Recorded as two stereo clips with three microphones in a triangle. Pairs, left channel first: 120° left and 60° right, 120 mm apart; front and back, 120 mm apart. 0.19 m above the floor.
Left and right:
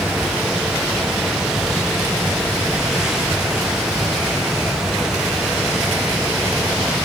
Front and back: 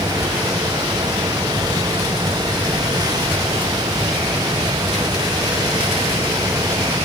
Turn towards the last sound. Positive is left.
No sound to turn to.